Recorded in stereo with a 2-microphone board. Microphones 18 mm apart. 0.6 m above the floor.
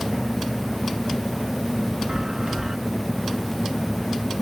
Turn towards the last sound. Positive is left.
turn(degrees=-30)  # may be behind; listen again after turning